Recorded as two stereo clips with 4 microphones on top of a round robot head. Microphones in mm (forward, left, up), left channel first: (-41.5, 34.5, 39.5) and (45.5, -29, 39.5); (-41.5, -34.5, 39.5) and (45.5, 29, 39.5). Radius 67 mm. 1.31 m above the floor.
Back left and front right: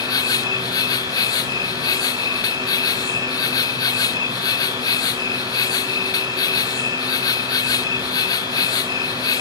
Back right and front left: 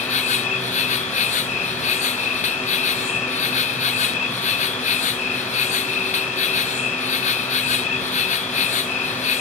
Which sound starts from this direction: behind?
An insect, at 0.0 s.